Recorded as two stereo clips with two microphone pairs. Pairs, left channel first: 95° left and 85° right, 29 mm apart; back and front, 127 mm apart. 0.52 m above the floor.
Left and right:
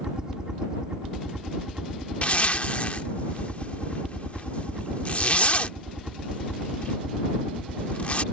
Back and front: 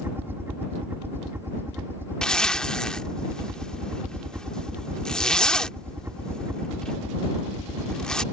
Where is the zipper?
95° left.